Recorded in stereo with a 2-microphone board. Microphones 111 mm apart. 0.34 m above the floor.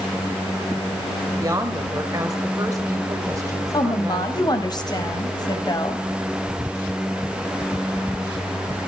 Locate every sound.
1.4 s a woman speaking: 30° right (ahead or behind), 1.7 m
3.7 s a woman speaking: 40° left (ahead or behind), 1.8 m